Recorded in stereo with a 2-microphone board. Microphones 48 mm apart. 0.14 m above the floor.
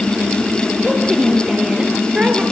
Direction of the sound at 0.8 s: 10° right (ahead or behind).